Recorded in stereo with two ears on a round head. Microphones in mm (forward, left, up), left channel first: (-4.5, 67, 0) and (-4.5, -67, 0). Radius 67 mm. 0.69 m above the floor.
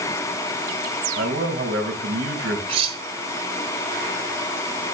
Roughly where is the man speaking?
Right.